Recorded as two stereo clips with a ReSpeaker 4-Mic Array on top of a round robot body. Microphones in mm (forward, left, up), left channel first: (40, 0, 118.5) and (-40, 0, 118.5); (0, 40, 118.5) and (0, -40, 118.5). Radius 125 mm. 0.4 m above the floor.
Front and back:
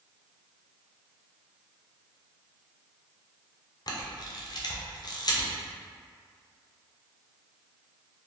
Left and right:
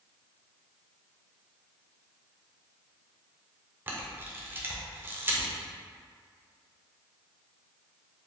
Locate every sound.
3.9 s a camera shutter: 25° right, 0.6 m